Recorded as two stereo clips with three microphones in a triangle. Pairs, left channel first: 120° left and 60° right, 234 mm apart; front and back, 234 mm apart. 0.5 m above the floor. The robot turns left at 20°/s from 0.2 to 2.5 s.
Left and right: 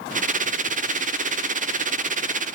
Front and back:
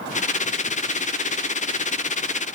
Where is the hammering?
No hammering in this recording.